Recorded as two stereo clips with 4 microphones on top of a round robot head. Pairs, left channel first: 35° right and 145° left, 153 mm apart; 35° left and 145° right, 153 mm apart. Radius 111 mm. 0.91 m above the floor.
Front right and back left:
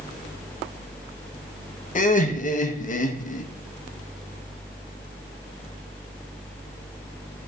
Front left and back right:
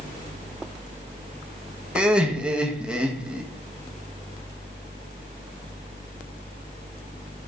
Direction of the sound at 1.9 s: 60° right.